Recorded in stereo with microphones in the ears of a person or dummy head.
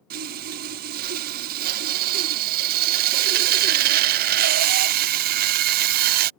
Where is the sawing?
50° right (ahead or behind).